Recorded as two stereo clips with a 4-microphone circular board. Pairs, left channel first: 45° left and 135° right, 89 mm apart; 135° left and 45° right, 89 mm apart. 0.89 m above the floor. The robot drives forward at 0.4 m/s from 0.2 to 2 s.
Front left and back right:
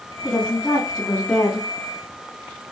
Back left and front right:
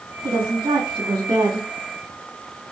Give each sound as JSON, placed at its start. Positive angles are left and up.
{"t": 0.2, "sound": "a woman speaking", "azimuth_deg": -20, "distance_m": 3.0}